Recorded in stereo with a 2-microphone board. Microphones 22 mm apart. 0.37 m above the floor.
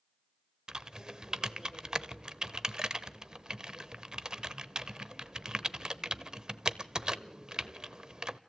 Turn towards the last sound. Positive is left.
turn(degrees=-30)  # may be behind; listen again after turning